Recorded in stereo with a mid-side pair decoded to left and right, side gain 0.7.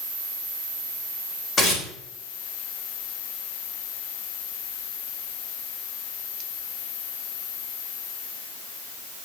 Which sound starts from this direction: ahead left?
Tearing paper, at 1.6 s.